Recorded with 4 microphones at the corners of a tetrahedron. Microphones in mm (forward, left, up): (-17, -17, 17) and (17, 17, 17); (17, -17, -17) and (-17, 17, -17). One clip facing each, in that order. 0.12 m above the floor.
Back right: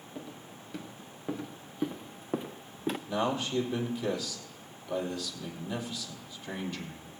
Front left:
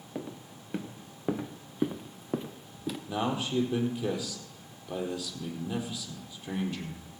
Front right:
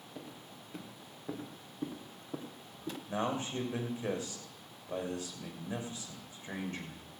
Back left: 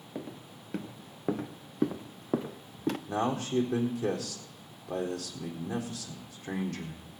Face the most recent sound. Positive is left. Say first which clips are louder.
# front left 1 dB, back left 2 dB
turn(degrees=120)